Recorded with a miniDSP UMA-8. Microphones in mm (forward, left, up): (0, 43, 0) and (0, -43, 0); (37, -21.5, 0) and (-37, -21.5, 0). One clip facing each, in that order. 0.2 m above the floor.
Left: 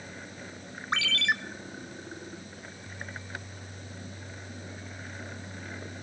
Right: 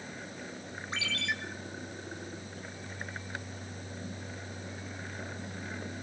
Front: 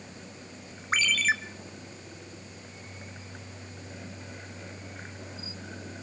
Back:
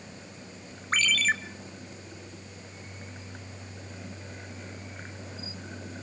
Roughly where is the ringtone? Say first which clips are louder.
Left 7 dB, even; left.